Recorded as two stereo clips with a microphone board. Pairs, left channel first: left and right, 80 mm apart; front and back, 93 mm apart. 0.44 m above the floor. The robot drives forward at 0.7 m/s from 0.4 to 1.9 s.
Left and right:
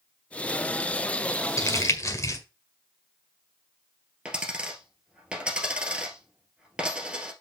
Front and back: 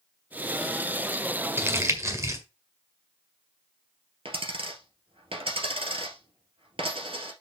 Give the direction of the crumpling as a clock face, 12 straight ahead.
8 o'clock.